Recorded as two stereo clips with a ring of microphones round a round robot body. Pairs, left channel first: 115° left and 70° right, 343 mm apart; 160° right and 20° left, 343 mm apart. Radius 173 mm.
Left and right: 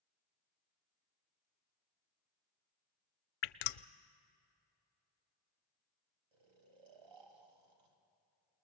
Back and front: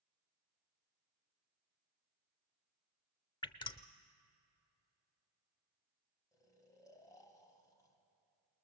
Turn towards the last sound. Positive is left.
turn(degrees=-75)